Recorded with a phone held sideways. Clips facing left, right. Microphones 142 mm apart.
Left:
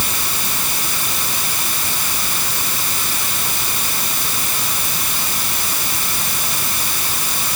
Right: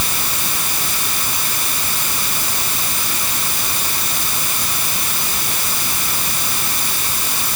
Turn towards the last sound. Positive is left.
No sound to turn to.